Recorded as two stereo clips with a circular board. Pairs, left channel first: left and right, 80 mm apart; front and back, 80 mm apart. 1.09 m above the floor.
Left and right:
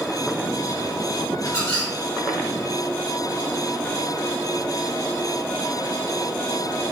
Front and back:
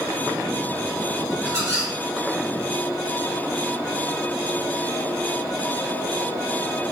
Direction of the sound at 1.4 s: 130° left.